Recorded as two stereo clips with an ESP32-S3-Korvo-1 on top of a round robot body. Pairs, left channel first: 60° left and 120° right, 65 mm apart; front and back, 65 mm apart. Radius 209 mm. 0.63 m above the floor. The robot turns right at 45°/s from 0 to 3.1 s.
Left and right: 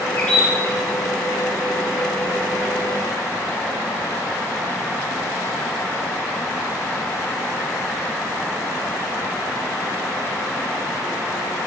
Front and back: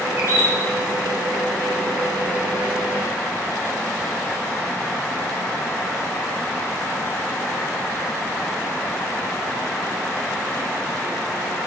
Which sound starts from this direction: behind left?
A bird, at 0.2 s.